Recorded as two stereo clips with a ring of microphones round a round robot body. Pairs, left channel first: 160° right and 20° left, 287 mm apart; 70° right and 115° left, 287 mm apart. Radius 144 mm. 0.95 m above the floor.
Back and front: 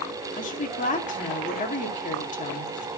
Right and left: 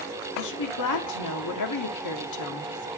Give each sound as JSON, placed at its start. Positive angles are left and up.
{"t": 0.3, "sound": "a woman speaking", "azimuth_deg": -95, "distance_m": 2.0}